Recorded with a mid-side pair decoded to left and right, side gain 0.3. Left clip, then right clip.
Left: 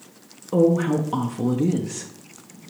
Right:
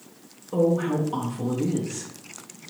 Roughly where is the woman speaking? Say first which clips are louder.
Left 3 dB; ahead left.